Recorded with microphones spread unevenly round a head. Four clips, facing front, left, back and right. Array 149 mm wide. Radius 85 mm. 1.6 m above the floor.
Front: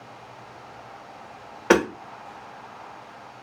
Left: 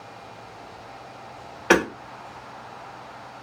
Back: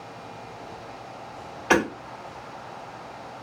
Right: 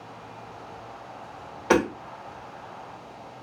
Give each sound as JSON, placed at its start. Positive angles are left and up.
{"t": 1.7, "sound": "hammering", "azimuth_deg": 10, "distance_m": 2.0}